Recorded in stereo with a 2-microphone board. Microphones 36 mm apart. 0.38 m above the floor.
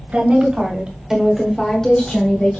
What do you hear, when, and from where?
0.1 s a woman speaking: 40° right (ahead or behind), 1.7 m; by 2.6 s 45° left (ahead or behind), 1.5 m